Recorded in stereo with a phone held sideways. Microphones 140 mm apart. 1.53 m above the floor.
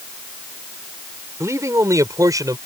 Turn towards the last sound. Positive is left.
turn(degrees=-25)  # may be behind; listen again after turning